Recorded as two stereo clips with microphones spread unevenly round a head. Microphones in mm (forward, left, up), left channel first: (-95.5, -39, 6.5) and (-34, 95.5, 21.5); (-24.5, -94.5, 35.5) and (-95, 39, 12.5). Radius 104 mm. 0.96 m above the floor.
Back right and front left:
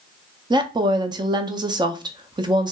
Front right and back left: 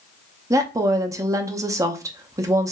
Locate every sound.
0.5 s a woman speaking: 105° left, 0.5 m